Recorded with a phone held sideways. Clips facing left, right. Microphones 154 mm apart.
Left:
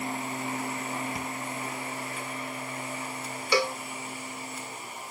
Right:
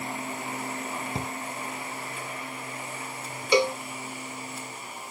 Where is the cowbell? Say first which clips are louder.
Right 4 dB; 20° right (ahead or behind).